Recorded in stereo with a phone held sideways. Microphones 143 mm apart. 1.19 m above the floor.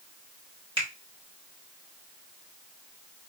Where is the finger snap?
40° right (ahead or behind), 1.3 m.